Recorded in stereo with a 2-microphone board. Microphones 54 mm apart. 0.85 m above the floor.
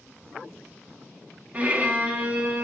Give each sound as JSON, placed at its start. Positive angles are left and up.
{"t": 1.5, "sound": "a violin", "side_deg": -30, "distance_m": 1.3}